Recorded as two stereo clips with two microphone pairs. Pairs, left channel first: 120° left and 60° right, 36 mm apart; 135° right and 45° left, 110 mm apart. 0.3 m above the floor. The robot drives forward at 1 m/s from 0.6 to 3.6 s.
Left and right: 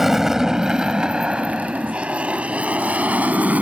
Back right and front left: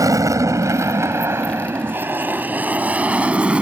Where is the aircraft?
15° left; by 3.6 s 35° right.